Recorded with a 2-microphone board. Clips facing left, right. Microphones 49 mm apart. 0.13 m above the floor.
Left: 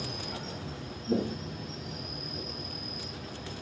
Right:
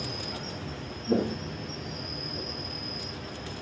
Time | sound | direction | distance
0.0 | an insect | 50° right (ahead or behind) | 1.7 m
1.1 | footsteps | 80° right | 0.5 m